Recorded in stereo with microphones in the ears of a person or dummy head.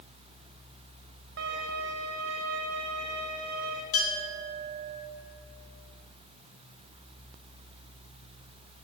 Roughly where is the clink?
Left.